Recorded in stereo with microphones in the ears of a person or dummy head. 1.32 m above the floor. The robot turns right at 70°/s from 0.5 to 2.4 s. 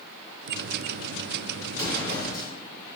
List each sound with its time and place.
1.7 s an explosion: 15° right, 1.8 m; by 2.5 s 35° left, 1.8 m